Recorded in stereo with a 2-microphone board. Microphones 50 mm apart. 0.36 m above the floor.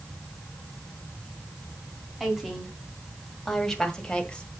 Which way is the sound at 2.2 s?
5° right (ahead or behind).